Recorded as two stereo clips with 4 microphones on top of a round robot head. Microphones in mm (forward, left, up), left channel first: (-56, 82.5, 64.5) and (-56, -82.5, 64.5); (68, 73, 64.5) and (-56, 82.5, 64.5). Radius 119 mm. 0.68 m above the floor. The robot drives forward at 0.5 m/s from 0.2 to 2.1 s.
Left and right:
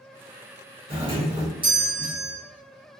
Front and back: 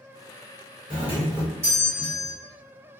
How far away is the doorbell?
About 1.9 m.